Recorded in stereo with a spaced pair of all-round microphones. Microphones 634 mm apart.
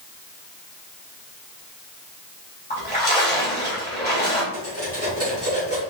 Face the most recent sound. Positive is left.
turn(degrees=-20)  # may be behind; listen again after turning